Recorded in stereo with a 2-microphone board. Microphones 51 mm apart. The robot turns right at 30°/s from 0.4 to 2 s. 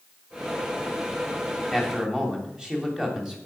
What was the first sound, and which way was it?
A man speaking, 5° right (ahead or behind).